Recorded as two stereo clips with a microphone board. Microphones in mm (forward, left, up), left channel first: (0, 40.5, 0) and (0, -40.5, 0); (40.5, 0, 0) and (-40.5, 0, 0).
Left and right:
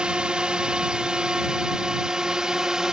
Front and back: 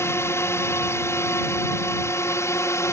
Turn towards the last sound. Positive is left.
turn(degrees=-10)